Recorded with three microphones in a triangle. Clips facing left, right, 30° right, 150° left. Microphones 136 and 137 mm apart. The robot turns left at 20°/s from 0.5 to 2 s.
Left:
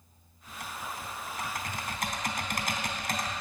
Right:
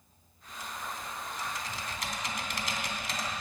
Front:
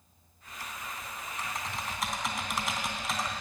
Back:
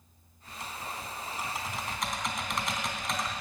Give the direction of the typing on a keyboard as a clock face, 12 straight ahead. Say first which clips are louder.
Left 1 dB, back 2 dB; 9 o'clock.